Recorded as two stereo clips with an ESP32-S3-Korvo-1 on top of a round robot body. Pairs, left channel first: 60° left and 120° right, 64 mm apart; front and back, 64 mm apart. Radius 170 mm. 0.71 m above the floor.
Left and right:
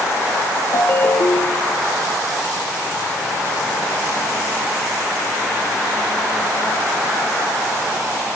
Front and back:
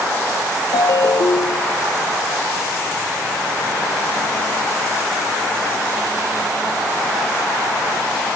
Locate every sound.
0.7 s a ringtone: 15° left, 0.8 m